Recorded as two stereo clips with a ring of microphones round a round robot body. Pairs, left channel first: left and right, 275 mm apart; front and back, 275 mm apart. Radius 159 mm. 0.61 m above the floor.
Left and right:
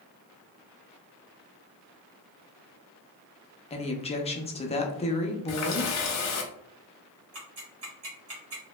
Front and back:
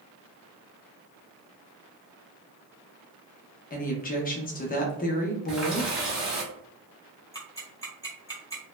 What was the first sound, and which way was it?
A woman speaking, 35° left.